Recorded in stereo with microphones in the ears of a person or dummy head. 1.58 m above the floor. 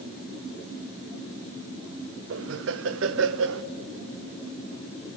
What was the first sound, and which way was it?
Laughter, 75° right (ahead or behind).